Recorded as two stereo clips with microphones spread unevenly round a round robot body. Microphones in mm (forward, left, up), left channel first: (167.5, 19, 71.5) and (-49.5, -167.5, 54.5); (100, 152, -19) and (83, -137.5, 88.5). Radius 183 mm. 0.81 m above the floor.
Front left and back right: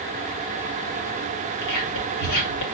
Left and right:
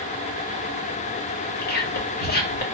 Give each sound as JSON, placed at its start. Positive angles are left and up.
{"t": 1.6, "sound": "whispering", "azimuth_deg": 45, "distance_m": 1.8}